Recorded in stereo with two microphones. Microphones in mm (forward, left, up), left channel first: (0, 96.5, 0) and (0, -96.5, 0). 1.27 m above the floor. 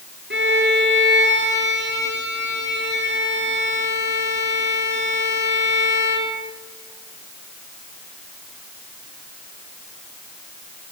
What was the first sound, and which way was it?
A violin, 75° right (ahead or behind).